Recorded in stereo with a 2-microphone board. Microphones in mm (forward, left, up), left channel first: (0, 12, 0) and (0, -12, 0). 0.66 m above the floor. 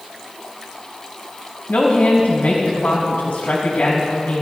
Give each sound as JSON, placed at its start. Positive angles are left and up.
{"t": 1.7, "sound": "a woman speaking", "side_deg": 70, "distance_m": 3.0}